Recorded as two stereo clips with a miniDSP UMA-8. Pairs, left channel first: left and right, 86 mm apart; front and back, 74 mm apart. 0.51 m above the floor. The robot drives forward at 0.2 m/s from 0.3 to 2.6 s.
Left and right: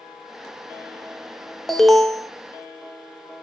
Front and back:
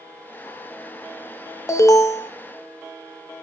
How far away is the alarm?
About 0.6 m.